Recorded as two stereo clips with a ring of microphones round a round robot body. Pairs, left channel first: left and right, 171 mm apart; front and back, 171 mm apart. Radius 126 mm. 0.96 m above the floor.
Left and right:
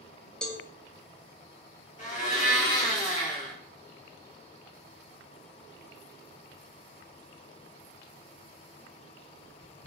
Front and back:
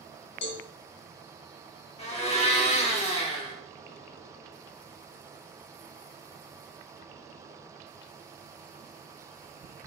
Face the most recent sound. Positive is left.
turn(degrees=50)